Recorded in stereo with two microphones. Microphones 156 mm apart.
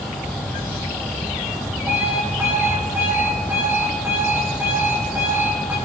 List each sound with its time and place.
1.9 s an alarm clock: 15° right (ahead or behind), 4 m